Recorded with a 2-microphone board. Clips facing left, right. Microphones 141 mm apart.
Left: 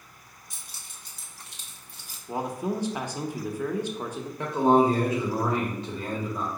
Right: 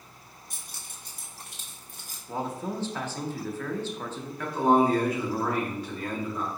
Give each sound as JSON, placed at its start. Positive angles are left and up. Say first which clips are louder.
{"t": 0.5, "sound": "keys jangling", "louder": "right 1 dB", "side_deg": -55, "distance_m": 1.7}
{"t": 2.3, "sound": "a man speaking", "louder": "left 3 dB", "side_deg": 15, "distance_m": 0.6}
{"t": 4.4, "sound": "a man speaking", "louder": "left 2 dB", "side_deg": 25, "distance_m": 1.1}